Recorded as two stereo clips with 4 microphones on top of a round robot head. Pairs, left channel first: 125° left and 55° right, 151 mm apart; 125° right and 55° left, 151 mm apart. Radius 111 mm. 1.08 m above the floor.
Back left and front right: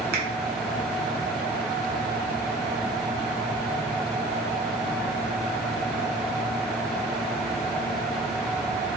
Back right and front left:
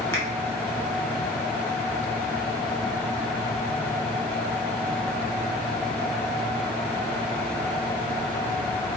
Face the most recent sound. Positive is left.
turn(degrees=-50)